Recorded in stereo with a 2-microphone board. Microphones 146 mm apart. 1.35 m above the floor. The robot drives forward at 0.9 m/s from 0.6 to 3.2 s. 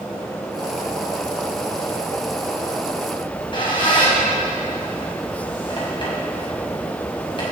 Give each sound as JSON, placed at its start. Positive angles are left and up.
{"t": 3.2, "sound": "a squeak", "side_deg": 35, "distance_m": 5.0}